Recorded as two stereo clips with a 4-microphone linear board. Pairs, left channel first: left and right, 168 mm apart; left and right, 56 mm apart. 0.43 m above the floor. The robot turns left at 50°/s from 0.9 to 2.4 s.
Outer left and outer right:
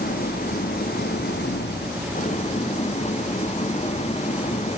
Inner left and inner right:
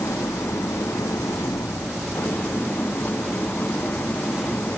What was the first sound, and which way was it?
An engine running, 115° left.